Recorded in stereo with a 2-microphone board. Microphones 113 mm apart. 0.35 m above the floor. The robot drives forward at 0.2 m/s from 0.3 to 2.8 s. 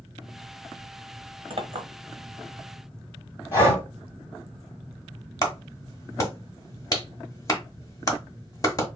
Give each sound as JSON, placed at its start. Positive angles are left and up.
{"t": 1.5, "sound": "a clink", "side_deg": -50, "distance_m": 0.8}
{"t": 3.5, "sound": "breathing", "side_deg": 20, "distance_m": 2.0}
{"t": 5.4, "sound": "a clap", "side_deg": 30, "distance_m": 0.8}